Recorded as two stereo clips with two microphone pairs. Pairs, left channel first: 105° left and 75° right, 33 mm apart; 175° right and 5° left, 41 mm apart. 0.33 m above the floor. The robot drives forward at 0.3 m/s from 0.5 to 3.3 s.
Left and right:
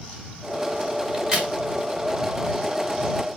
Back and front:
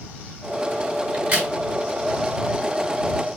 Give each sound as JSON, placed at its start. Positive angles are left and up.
{"t": 1.1, "sound": "a crack", "azimuth_deg": -20, "distance_m": 1.4}